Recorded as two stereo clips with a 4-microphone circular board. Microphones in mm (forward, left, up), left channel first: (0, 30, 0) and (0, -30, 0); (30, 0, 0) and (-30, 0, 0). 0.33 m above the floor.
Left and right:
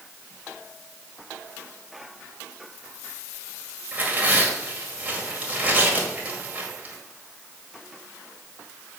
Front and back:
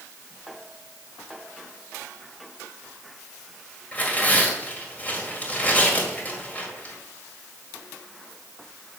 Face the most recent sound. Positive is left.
turn(degrees=-45)